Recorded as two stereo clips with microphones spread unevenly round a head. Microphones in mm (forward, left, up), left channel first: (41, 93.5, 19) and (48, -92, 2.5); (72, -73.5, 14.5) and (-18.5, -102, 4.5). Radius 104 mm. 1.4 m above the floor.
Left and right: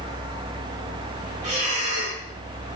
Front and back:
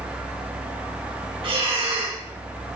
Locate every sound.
1.4 s breathing: 145° right, 1.0 m